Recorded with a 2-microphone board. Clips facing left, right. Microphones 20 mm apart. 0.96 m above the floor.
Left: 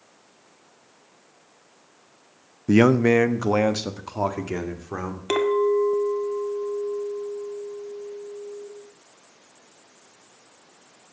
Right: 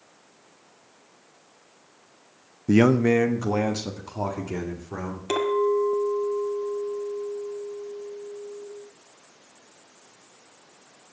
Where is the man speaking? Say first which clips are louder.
Left 2 dB; 10° left (ahead or behind), 0.5 m; by 5.2 s 35° left (ahead or behind), 2.5 m.